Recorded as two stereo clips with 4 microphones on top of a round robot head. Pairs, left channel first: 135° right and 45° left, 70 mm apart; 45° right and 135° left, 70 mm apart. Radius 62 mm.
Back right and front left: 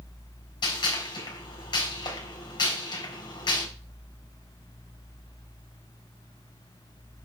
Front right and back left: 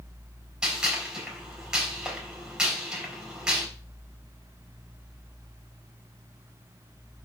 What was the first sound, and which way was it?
A gunshot, 140° right.